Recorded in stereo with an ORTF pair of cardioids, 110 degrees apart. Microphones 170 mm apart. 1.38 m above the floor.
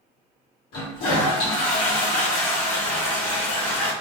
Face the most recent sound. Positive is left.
turn(degrees=65)